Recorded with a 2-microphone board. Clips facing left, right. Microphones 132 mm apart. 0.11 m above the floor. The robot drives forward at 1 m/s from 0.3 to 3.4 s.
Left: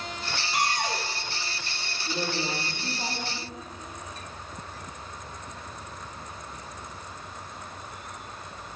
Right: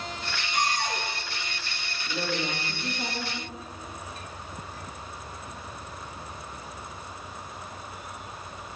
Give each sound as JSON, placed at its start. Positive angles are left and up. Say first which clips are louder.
{"t": 0.5, "sound": "a cupboard door", "louder": "even", "side_deg": 65, "distance_m": 3.5}
{"t": 2.0, "sound": "a woman speaking", "louder": "even", "side_deg": 20, "distance_m": 6.5}